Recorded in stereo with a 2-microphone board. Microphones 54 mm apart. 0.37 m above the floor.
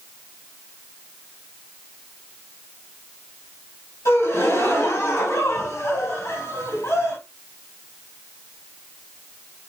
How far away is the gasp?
About 2 m.